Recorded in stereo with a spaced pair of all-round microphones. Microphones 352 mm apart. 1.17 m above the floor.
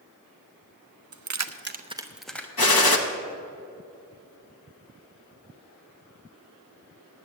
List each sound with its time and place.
1.1 s keys jangling: 55° right (ahead or behind), 0.6 m; by 2.5 s 5° left (ahead or behind), 1.0 m
2.6 s a gunshot: 85° left, 1.0 m